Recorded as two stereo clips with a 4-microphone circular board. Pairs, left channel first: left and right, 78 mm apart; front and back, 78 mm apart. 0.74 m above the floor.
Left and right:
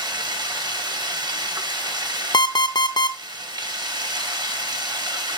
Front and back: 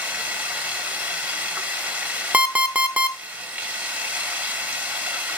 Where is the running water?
115° right, 1.3 m.